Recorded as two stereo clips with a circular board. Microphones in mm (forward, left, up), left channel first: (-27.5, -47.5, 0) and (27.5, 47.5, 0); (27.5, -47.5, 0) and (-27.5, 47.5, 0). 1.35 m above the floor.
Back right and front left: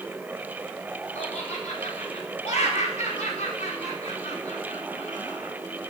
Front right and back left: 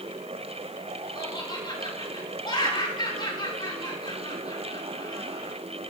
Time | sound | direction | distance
1.1 | laughter | 110° right | 5 m